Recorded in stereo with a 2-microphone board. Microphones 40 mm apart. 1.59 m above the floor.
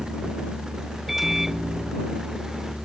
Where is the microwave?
10° right (ahead or behind).